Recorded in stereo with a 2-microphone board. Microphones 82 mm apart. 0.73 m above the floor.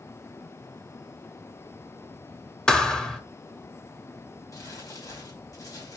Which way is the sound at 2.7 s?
10° left (ahead or behind).